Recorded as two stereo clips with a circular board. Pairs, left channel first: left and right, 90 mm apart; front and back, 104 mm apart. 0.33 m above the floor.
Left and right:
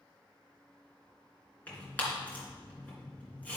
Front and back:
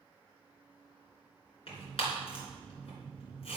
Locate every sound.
1.7 s tearing paper: 20° left, 3 m